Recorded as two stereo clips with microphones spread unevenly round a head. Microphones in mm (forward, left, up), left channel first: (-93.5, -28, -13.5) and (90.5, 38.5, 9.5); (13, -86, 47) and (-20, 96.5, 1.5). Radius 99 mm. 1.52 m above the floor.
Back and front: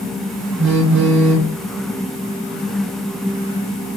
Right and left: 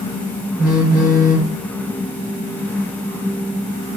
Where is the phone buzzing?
10° left, 2.0 m.